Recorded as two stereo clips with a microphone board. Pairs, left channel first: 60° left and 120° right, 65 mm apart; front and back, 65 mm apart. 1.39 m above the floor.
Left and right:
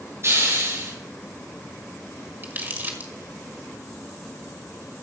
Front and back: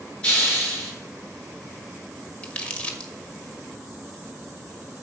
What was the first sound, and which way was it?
A hiss, 75° right.